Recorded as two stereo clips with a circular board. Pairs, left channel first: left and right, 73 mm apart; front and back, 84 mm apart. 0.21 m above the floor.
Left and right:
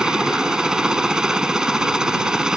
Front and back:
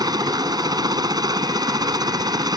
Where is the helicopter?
170° right.